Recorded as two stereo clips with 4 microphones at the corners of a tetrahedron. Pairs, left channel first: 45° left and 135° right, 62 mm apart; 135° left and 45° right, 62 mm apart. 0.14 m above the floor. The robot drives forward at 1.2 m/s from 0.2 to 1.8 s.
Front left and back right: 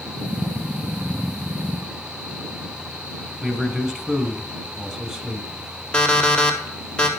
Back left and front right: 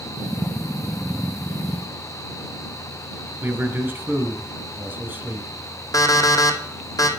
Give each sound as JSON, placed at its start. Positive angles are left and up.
{"t": 3.4, "sound": "a man speaking", "azimuth_deg": -60, "distance_m": 1.3}
{"t": 5.9, "sound": "an alarm clock", "azimuth_deg": 120, "distance_m": 2.0}